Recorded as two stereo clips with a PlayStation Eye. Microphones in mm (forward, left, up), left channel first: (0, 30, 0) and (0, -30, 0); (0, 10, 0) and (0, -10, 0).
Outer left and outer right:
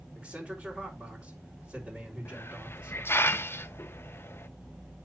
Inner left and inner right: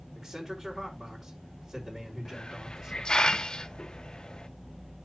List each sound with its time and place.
0.1 s a man speaking: 20° right (ahead or behind), 4 m
2.2 s a hiss: 40° left (ahead or behind), 0.5 m